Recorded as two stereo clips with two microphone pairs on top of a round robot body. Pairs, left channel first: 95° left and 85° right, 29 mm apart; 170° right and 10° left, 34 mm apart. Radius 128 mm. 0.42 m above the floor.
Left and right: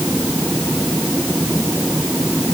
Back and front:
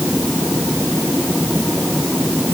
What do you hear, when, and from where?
Only background noise.